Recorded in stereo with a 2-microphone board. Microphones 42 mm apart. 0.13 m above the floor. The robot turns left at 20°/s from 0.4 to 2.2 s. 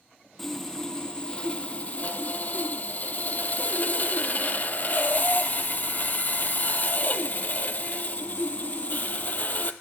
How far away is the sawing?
About 0.6 m.